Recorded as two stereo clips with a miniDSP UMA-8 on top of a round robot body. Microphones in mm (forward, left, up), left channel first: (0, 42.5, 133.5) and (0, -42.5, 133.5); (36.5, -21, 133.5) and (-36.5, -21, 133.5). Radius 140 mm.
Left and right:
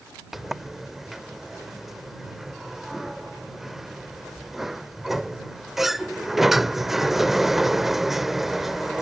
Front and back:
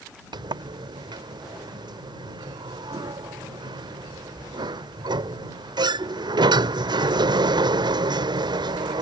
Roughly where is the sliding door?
Behind.